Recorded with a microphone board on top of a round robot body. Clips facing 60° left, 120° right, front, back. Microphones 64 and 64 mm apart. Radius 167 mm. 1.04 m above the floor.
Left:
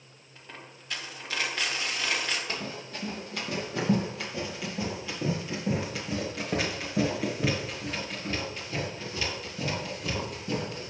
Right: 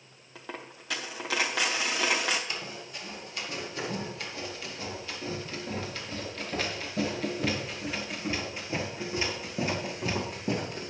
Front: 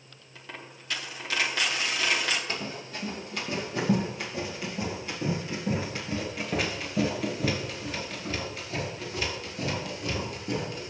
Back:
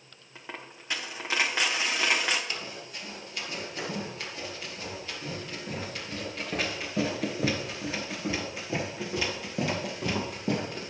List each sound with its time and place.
0.3 s a dropped coin: 110° right, 0.8 m
2.5 s running footsteps: 35° left, 3 m; by 10.9 s 170° right, 2.5 m